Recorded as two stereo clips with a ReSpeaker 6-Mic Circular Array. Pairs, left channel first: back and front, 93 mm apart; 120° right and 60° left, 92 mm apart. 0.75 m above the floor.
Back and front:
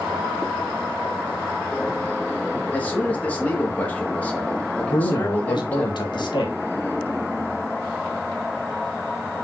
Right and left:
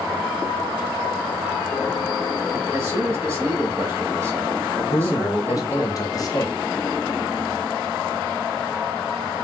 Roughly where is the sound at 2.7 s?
Left.